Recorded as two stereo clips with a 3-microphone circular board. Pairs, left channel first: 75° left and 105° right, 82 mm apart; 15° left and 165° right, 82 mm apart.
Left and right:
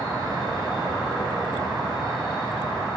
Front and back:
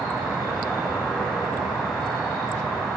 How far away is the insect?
About 3 m.